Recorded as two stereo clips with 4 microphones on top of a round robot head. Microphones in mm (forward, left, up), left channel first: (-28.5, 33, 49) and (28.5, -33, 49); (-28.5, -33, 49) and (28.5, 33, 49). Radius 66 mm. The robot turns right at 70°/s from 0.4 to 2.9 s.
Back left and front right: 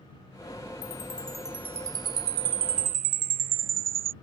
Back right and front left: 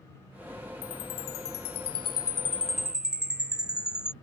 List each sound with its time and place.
0.8 s a chime: straight behind; by 4.1 s 30° right